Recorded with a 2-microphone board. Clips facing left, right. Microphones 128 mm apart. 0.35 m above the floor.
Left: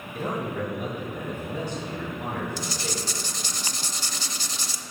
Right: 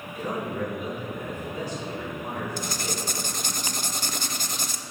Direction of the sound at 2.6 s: 55° right (ahead or behind).